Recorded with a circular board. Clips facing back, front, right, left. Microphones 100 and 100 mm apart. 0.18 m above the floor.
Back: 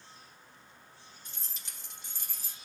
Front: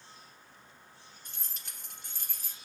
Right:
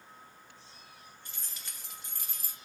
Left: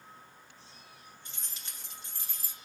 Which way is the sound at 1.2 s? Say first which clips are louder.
Even, even; 25° left.